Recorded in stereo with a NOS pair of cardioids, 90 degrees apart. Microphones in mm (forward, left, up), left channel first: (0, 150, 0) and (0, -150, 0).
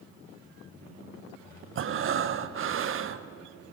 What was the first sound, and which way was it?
Breathing, 45° right.